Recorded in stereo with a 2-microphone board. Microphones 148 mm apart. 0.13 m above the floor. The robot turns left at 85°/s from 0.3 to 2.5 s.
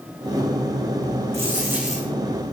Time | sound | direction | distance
1.3 | a dropped coin | 135° right | 3.5 m